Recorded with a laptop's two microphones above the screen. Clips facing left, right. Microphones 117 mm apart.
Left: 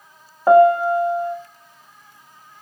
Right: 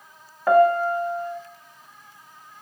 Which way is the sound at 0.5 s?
25° left (ahead or behind).